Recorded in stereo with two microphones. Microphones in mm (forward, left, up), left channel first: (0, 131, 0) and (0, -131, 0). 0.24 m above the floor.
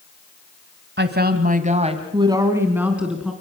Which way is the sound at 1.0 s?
40° right (ahead or behind).